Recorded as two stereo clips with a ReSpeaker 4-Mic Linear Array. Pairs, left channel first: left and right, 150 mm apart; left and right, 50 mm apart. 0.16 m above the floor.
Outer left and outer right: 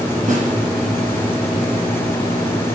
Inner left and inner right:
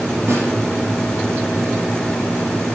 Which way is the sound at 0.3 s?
50° right (ahead or behind).